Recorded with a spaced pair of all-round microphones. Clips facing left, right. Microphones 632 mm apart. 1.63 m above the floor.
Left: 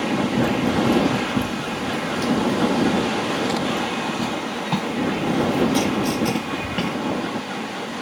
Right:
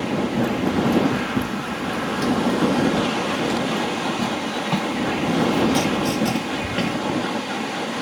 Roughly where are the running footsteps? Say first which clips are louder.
Left 1 dB; centre.